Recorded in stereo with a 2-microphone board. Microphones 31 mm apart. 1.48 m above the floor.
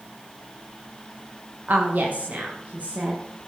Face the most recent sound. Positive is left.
turn(degrees=-45)  # may be behind; listen again after turning